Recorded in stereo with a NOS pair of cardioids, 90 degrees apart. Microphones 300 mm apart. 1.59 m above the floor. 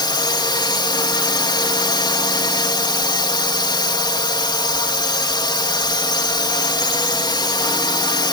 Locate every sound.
0.0 s a drone: 15° left